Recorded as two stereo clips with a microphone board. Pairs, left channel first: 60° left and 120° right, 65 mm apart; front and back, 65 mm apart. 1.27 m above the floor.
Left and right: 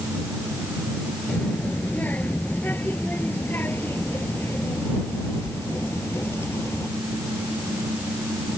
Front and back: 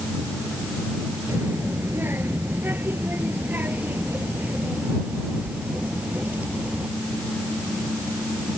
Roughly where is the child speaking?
Behind left.